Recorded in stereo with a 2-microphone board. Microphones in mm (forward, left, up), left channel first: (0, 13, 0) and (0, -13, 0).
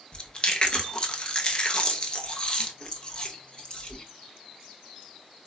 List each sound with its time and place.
0.1 s chewing: 35° left (ahead or behind), 0.5 m